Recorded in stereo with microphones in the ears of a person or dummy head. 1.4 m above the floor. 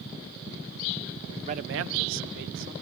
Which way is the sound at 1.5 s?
35° right (ahead or behind).